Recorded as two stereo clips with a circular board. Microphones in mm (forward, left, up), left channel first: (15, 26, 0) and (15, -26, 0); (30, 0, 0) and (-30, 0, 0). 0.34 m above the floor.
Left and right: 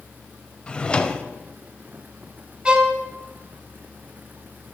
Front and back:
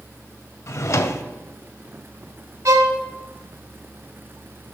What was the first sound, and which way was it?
A drawer, 25° left.